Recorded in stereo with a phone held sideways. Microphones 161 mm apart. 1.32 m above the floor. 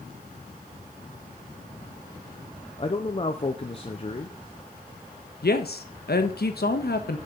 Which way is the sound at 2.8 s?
35° left (ahead or behind).